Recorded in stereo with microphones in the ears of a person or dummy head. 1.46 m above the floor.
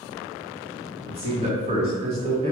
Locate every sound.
1.1 s a man speaking: 35° right (ahead or behind), 1.0 m